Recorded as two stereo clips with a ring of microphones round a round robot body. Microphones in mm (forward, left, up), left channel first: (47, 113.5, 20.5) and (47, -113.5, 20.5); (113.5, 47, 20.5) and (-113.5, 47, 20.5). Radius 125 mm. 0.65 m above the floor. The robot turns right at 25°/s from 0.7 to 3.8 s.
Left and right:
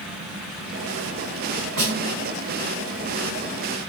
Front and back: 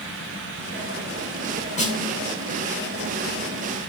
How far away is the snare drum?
About 3 m.